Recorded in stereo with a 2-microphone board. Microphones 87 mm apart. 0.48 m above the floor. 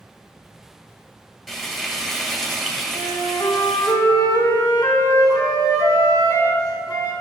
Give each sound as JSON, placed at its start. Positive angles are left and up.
{"t": 1.5, "sound": "frying", "side_deg": -5, "distance_m": 2.5}
{"t": 2.9, "sound": "a flute", "side_deg": 45, "distance_m": 3.0}